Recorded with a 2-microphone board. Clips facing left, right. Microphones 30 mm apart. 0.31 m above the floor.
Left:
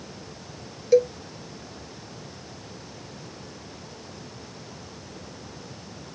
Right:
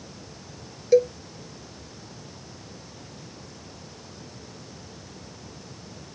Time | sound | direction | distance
0.9 | a cowbell | centre (ahead or behind) | ?